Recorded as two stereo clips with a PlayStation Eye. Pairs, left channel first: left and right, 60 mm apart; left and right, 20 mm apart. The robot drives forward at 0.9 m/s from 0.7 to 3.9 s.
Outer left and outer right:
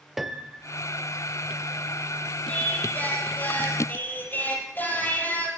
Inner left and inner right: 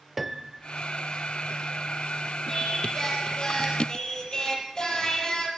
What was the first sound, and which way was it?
A piano, 5° right (ahead or behind).